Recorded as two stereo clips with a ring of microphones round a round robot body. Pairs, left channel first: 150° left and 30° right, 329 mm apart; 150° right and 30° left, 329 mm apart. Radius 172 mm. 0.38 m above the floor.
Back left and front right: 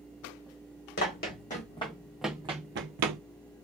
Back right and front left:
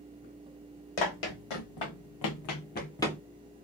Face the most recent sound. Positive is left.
turn(degrees=-60)